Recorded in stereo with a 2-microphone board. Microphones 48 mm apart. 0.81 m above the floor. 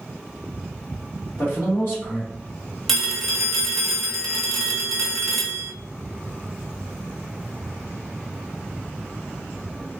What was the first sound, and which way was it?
A man speaking, 50° left (ahead or behind).